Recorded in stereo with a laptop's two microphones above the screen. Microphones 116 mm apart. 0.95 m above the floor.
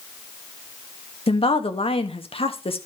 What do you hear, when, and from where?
1.3 s a woman speaking: 55° left (ahead or behind), 1.4 m